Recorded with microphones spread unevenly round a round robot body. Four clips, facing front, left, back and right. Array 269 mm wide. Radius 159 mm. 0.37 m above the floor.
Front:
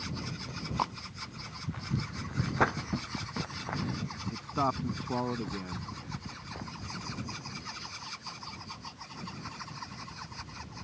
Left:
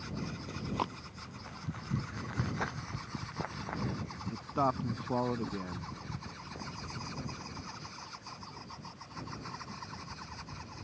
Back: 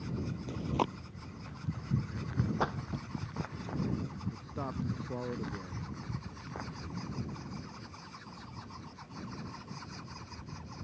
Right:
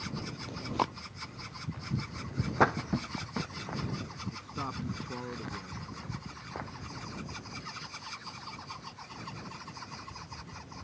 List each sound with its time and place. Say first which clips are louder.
0.5 s chewing: right 5 dB, back 1 dB; 170° right
2.6 s a splash: right 11 dB, front 5 dB; 55° right
4.3 s a man speaking: left 10 dB, front 9 dB; 35° left